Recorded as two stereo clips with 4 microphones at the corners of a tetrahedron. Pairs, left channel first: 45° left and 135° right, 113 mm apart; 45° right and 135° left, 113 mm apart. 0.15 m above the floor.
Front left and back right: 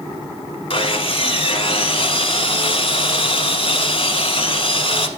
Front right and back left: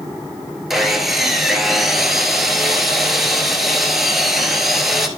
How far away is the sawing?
About 0.9 m.